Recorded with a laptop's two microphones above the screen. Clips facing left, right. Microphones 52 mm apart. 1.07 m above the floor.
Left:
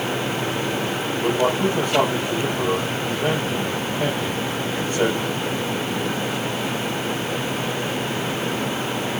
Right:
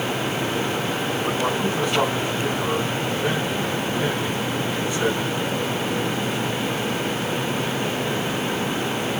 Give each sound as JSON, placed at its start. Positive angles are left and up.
{"t": 1.2, "sound": "a man speaking", "side_deg": 40, "distance_m": 8.0}